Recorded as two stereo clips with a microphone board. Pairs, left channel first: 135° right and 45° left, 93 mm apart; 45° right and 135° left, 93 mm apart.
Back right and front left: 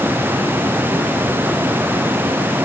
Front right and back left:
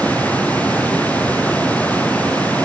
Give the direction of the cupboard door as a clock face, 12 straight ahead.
I don't hear a cupboard door.